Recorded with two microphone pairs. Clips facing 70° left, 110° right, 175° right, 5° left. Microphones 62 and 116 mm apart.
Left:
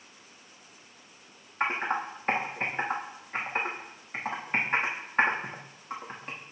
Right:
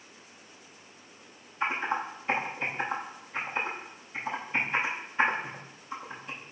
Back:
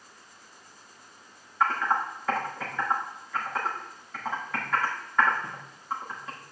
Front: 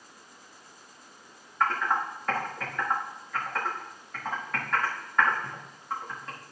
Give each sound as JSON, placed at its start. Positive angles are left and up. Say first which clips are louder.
{"t": 1.6, "sound": "typing on a keyboard", "louder": "left 1 dB, back 1 dB", "azimuth_deg": 100, "distance_m": 6.5}